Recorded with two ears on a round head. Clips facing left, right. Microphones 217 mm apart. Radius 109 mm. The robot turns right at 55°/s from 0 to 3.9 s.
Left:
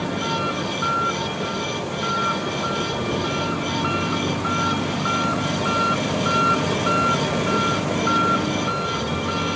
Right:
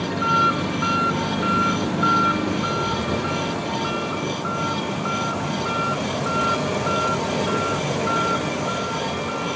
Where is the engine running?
175° left; by 9.6 s 30° left.